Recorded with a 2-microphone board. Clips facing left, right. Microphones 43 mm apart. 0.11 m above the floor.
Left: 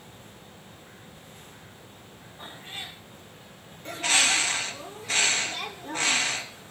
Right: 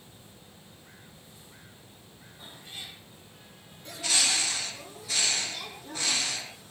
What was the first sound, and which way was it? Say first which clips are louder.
A cat meowing: left 5 dB; 45° left (ahead or behind).